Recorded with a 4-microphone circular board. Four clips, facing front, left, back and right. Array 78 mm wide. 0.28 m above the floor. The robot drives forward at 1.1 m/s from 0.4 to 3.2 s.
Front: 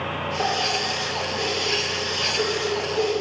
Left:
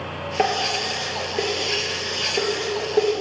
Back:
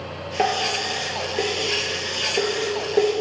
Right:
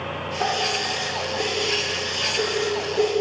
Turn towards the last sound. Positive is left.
turn(degrees=145)